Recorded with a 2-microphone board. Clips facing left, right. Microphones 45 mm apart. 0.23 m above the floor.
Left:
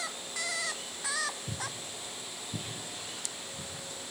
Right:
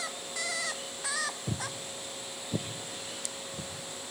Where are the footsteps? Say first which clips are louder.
Right 2 dB; 50° right (ahead or behind), 0.7 m.